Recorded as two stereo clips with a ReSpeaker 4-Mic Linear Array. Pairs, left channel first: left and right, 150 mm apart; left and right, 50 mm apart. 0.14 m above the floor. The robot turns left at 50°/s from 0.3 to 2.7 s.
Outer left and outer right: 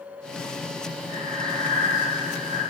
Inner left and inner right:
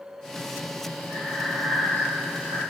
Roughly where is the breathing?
Ahead.